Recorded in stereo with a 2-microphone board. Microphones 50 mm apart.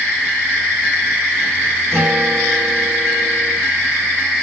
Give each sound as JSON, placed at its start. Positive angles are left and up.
{"t": 1.9, "sound": "a guitar", "side_deg": -50, "distance_m": 4.5}